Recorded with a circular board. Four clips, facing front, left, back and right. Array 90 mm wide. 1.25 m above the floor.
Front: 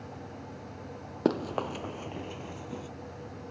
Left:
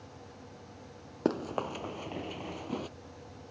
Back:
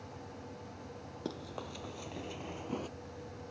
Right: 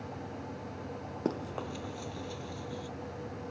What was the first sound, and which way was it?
Running footsteps, 20° left.